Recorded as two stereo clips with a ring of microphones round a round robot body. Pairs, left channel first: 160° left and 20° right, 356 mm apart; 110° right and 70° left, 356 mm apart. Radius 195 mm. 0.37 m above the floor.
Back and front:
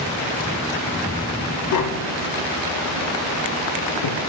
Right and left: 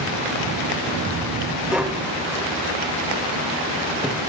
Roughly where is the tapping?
Behind left.